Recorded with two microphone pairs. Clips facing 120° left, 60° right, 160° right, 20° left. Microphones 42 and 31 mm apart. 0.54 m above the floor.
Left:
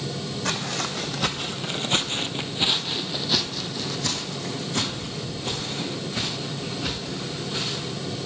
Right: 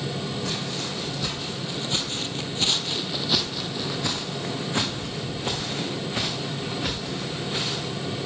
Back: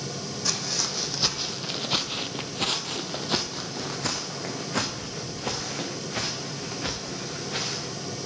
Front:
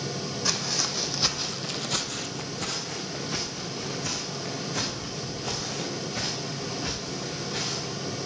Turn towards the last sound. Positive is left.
turn(degrees=-115)